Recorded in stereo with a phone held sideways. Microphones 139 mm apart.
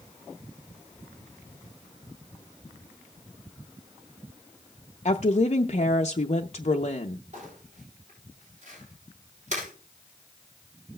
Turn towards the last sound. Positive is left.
turn(degrees=-55)  # may be behind; listen again after turning